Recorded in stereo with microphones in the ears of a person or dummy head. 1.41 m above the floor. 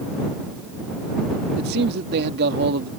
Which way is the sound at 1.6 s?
55° right (ahead or behind).